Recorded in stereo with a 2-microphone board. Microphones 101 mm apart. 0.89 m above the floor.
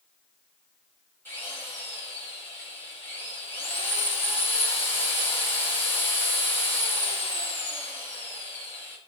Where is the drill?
20° left (ahead or behind), 5 m.